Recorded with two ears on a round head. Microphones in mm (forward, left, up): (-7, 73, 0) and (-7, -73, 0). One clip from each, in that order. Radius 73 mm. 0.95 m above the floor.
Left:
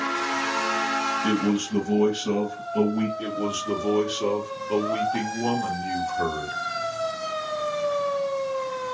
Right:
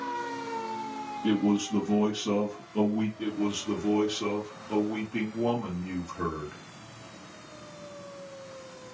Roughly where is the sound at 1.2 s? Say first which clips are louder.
Left 3 dB; left.